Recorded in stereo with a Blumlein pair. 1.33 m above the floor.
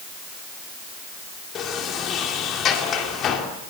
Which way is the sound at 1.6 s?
30° left.